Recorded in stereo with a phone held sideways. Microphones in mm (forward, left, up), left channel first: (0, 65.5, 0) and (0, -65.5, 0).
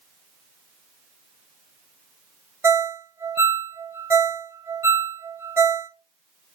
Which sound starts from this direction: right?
A ringtone, at 2.6 s.